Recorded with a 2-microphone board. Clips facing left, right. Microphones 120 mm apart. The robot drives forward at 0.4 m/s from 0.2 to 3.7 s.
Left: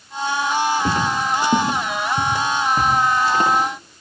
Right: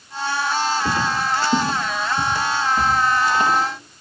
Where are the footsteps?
45° left (ahead or behind), 7.5 m; by 3.5 s 40° left (ahead or behind), 11.5 m.